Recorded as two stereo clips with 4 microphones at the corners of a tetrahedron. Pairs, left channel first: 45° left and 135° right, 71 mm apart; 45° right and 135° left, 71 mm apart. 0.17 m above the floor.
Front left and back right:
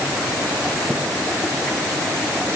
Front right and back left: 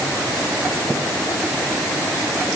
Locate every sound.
Only background noise.